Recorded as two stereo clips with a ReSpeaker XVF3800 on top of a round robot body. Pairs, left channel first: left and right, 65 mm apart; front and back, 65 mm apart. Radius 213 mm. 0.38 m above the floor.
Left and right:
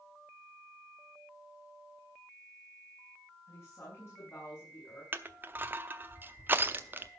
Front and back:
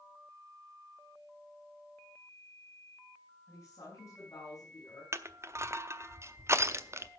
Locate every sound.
3.5 s a woman speaking: 45° left, 6 m; by 5.0 s 40° left, 7 m
5.1 s crushing: 140° right, 1.3 m